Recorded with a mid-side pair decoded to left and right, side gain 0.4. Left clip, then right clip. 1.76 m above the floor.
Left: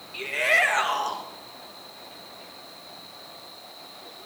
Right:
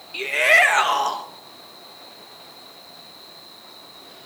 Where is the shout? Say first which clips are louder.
Right 6 dB; 45° right, 1.9 m.